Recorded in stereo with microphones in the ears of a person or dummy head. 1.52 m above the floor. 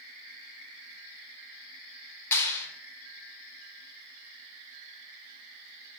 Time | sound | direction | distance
2.3 | a clap | 10° left (ahead or behind) | 1.6 m